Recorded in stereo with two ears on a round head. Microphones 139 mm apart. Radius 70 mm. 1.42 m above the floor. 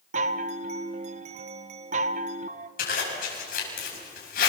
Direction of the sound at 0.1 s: 45° right (ahead or behind).